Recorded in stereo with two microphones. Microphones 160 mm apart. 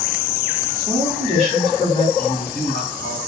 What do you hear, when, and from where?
0.7 s a woman speaking: 5° right (ahead or behind), 2.5 m
2.2 s a man speaking: 70° left (ahead or behind), 4 m